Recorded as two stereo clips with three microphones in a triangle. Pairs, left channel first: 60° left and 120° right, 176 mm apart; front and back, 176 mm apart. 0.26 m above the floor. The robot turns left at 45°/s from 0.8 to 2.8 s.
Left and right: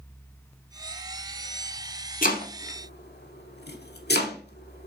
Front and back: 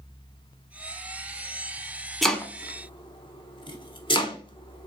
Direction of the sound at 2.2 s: 90° left.